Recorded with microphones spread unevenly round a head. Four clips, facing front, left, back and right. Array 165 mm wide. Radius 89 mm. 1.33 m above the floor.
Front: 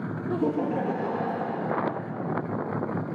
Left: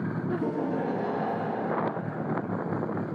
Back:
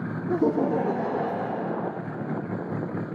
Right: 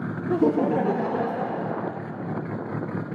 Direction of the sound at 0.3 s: 110° right.